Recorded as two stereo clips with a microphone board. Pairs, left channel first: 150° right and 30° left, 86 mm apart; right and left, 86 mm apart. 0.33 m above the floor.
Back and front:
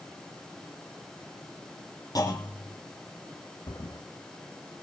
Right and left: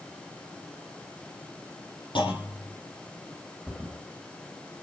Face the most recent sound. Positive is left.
turn(degrees=-175)